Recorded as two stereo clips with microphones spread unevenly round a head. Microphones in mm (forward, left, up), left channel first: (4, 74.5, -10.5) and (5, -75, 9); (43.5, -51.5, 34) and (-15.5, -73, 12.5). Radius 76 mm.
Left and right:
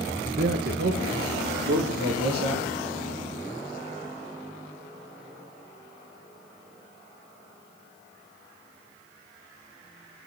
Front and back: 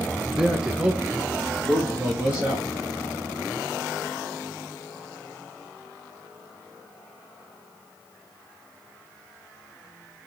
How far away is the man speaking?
About 1.0 m.